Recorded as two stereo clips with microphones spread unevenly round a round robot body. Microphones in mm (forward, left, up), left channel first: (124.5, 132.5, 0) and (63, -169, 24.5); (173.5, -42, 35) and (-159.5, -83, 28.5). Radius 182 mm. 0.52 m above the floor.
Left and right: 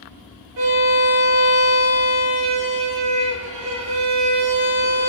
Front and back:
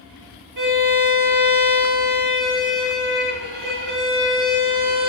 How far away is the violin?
About 1.3 m.